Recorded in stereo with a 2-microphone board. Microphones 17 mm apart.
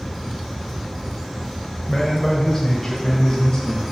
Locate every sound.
1.9 s a man speaking: 15° left (ahead or behind), 1.3 m; by 3.8 s 50° left (ahead or behind), 3 m